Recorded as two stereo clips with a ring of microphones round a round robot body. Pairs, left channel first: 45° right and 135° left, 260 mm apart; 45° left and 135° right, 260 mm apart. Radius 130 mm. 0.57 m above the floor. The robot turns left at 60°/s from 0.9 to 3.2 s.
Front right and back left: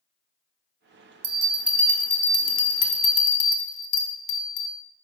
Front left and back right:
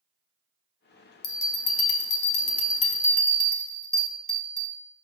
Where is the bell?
75° left, 1.2 m; by 4.8 s 40° right, 1.2 m.